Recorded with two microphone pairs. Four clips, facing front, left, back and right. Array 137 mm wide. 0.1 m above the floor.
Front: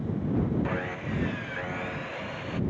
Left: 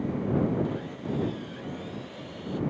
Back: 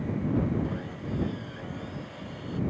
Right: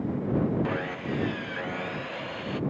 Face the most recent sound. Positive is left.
turn(degrees=-65)